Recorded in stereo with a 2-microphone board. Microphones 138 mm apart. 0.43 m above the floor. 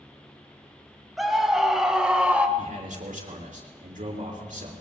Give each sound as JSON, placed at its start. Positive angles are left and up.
{"t": 1.2, "sound": "a scream", "side_deg": 0, "distance_m": 3.0}
{"t": 2.6, "sound": "a man speaking", "side_deg": -70, "distance_m": 5.0}